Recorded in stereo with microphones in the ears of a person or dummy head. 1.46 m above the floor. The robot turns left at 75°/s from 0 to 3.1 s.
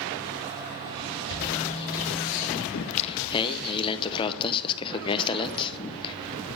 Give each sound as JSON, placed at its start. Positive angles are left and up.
{"t": 1.3, "sound": "a bird", "side_deg": 70, "distance_m": 7.0}
{"t": 2.7, "sound": "singing", "side_deg": 55, "distance_m": 0.9}